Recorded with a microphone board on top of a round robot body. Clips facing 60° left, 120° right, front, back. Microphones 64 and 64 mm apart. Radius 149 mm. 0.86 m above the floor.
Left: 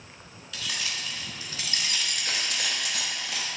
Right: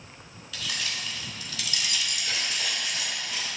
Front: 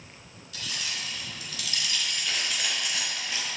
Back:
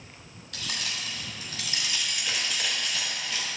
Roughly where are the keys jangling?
Behind left.